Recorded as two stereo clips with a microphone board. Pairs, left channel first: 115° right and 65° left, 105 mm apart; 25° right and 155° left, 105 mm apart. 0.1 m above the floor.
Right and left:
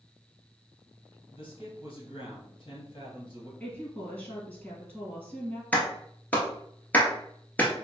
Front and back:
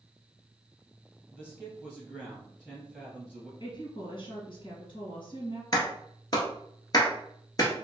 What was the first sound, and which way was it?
A man speaking, 100° right.